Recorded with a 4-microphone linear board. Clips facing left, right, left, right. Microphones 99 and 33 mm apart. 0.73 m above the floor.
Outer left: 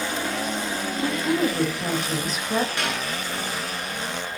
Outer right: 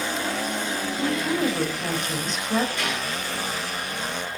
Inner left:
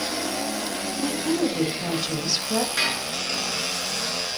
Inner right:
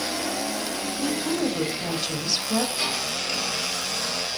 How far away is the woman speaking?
About 3.5 m.